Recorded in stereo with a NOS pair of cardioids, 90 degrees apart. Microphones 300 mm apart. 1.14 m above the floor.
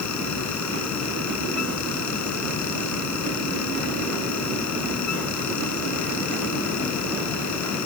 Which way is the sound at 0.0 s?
65° left.